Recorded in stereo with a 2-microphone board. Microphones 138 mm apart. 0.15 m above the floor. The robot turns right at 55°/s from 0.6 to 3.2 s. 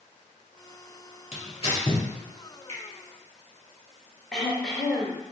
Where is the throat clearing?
Centre (ahead or behind), 1.2 m.